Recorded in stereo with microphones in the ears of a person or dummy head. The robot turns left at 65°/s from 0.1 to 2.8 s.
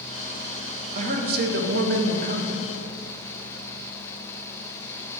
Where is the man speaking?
40° right, 0.8 m; by 2.7 s 155° right, 0.8 m.